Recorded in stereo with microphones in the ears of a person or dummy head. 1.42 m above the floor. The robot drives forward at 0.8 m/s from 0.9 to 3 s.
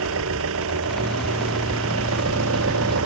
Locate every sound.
0.0 s an engine running: 80° right